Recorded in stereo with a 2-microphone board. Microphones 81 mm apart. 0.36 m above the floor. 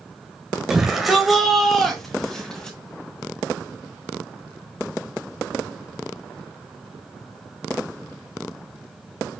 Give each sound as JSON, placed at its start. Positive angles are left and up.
{"t": 0.7, "sound": "a shout", "side_deg": -5, "distance_m": 1.7}